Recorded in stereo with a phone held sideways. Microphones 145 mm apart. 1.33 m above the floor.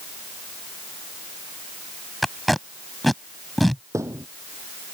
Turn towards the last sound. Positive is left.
turn(degrees=-20)  # may be behind; listen again after turning